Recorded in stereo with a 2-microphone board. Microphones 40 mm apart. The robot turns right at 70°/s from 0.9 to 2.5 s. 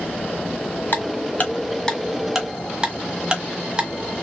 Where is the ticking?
60° left (ahead or behind), 1.2 m; by 4.2 s 15° right (ahead or behind), 1.2 m.